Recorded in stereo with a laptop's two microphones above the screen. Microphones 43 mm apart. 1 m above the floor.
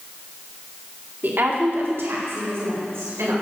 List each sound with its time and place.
1.2 s a woman speaking: 50° right (ahead or behind), 2.5 m; by 3.3 s 85° right, 4.5 m